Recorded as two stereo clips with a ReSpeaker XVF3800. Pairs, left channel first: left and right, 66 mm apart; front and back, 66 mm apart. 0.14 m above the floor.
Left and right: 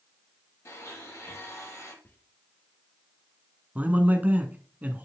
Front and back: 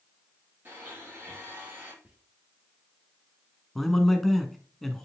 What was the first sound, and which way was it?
A blender, 125° left.